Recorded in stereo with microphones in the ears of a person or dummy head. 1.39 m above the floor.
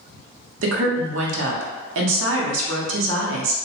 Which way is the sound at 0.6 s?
85° right.